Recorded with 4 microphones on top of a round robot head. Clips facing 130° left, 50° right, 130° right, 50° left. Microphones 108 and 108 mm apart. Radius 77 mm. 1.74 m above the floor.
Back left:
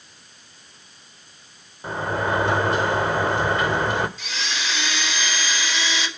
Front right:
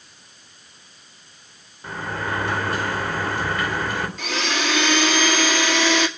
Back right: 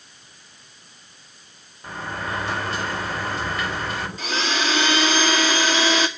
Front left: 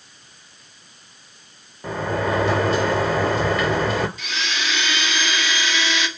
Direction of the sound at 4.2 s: 80° right.